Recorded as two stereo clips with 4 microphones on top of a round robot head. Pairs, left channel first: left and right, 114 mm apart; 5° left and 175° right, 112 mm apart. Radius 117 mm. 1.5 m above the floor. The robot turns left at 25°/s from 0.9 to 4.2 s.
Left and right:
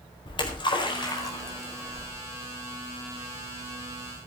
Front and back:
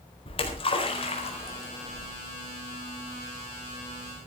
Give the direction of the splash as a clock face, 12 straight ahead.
11 o'clock.